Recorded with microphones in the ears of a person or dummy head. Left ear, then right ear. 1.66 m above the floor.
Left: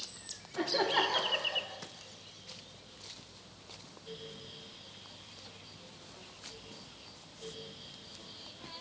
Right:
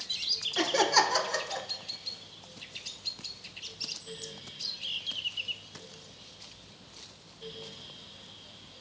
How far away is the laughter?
About 1.8 m.